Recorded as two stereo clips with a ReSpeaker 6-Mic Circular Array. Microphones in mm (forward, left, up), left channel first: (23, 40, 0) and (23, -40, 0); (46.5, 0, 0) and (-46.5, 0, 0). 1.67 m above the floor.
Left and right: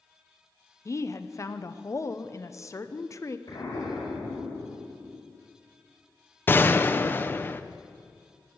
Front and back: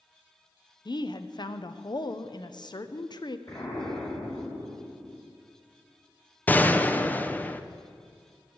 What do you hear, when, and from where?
0.8 s a woman speaking: 35° left, 0.7 m
3.5 s an explosion: 45° left, 5.5 m
6.5 s a gunshot: 55° left, 0.6 m